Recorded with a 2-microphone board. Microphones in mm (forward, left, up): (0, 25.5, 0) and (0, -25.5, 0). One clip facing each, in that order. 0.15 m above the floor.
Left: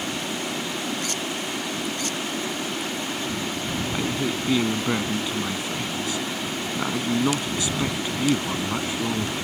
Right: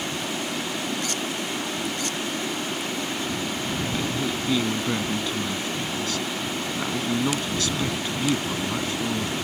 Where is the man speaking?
15° left (ahead or behind).